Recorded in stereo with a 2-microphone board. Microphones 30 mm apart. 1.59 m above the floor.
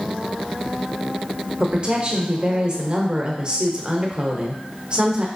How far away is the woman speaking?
About 0.7 m.